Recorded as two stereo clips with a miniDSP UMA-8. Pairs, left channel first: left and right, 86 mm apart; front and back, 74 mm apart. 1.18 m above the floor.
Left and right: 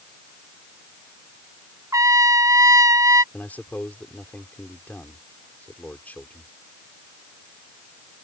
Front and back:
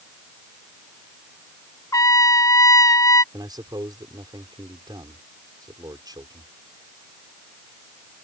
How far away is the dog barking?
No dog barking in this recording.